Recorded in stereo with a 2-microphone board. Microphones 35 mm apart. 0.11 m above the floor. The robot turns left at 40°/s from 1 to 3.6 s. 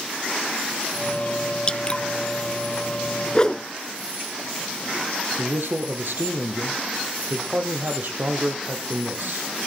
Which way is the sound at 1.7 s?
25° left (ahead or behind).